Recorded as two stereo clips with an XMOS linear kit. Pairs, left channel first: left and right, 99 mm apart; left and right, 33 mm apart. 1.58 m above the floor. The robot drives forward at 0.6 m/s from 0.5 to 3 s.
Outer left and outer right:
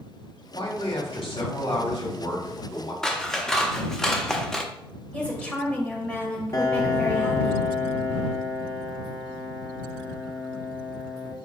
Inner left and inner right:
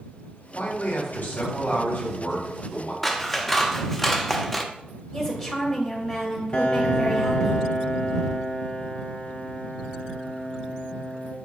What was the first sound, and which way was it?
A man speaking, 80° left.